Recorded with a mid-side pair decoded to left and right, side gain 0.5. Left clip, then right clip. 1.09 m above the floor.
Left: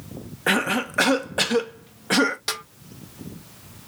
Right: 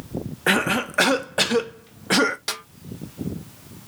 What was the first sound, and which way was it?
A cough, 15° right.